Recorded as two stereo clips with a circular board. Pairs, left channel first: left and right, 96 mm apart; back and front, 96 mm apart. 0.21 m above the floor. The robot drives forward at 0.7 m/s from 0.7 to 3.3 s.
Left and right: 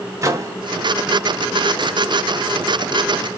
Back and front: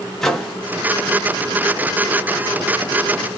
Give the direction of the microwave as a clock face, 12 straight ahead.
3 o'clock.